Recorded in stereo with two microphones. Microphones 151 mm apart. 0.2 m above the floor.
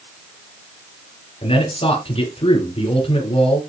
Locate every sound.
1.4 s a man speaking: 40° left (ahead or behind), 4.5 m